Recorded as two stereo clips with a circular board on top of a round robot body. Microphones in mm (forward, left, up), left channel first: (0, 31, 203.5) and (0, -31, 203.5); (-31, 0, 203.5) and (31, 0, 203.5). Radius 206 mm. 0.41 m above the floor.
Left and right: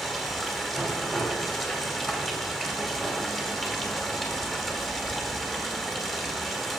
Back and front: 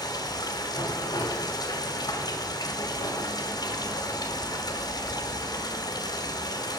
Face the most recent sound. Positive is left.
turn(degrees=175)